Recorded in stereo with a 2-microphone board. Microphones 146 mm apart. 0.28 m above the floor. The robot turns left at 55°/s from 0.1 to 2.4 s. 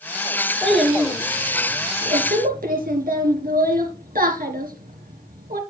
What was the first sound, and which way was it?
A child speaking, 10° left (ahead or behind).